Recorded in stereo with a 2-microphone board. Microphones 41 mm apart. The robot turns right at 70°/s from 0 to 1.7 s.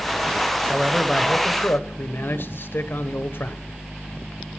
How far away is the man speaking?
About 1.1 m.